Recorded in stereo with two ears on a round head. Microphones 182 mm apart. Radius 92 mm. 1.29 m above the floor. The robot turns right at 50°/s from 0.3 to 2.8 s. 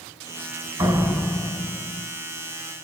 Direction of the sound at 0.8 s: 30° right.